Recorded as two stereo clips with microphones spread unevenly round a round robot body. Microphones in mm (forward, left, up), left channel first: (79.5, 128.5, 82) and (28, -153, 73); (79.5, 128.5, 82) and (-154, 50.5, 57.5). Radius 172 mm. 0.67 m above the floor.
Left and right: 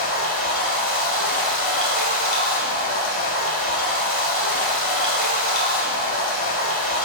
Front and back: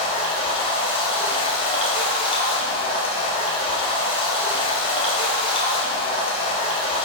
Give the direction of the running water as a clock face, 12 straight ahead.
9 o'clock.